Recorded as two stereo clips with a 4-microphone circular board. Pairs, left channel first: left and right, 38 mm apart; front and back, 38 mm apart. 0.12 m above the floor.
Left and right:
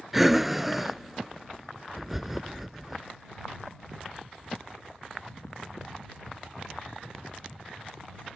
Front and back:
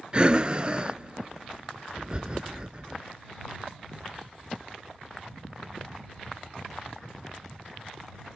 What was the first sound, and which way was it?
Breathing, 165° right.